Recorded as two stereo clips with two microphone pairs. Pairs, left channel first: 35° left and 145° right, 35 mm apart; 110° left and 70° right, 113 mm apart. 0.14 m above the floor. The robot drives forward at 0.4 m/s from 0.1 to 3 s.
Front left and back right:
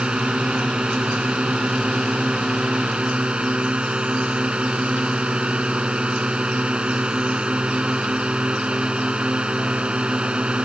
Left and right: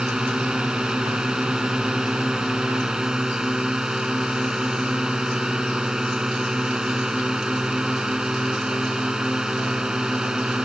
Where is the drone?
150° right.